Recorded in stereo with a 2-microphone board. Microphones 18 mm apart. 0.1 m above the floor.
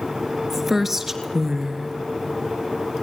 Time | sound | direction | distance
0.5 | a woman speaking | 20° right (ahead or behind) | 1.9 m